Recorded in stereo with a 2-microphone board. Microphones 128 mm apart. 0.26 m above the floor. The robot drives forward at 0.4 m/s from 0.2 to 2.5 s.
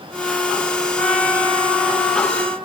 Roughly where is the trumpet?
Centre.